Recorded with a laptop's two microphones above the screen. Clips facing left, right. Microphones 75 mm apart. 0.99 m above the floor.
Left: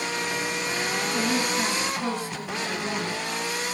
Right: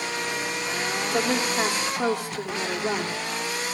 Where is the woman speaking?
70° right (ahead or behind), 3 m; by 3.1 s 65° right (ahead or behind), 3 m.